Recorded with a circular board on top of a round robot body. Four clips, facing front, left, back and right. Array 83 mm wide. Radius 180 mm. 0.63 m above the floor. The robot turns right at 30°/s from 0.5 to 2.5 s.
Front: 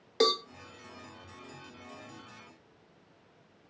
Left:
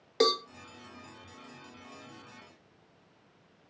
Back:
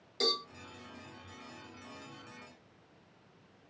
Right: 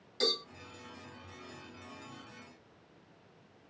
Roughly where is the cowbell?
Ahead left.